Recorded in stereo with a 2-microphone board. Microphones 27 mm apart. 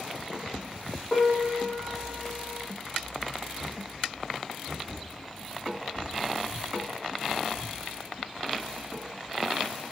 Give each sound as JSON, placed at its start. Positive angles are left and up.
{"t": 1.1, "sound": "a piano", "side_deg": 5, "distance_m": 1.8}